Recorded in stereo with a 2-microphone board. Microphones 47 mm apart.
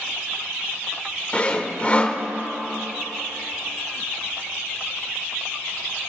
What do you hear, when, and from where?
1.3 s sawing: 25° left (ahead or behind), 1.1 m